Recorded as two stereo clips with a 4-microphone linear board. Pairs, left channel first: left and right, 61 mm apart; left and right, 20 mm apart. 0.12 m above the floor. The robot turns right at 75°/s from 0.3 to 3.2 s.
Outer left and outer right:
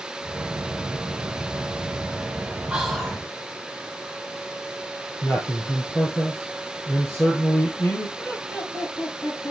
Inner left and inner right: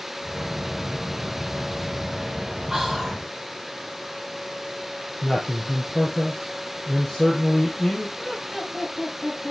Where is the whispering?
20° right, 3.5 m; by 3.2 s 20° left, 3.5 m.